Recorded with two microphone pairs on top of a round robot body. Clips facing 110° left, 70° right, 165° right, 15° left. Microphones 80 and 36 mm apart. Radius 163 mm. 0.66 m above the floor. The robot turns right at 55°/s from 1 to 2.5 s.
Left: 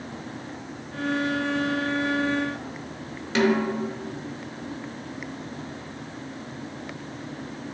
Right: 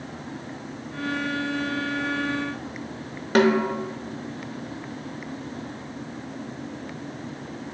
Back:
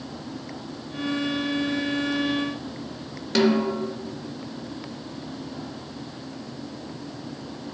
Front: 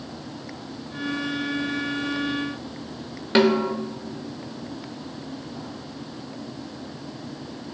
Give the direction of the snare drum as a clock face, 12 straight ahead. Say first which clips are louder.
Right 3 dB, front 2 dB; 1 o'clock.